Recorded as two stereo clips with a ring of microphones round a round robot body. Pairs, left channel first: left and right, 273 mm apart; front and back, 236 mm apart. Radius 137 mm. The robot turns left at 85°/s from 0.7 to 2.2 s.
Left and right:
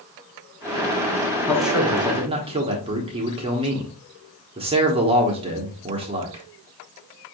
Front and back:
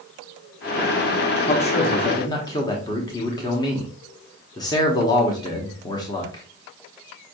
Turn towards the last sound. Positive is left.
turn(degrees=-50)